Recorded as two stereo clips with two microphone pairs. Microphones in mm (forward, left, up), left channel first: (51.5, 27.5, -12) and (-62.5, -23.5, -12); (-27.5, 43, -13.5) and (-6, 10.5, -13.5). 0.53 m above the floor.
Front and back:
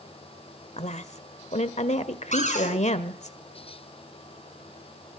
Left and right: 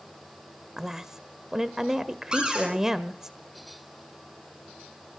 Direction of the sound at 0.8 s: 20° left.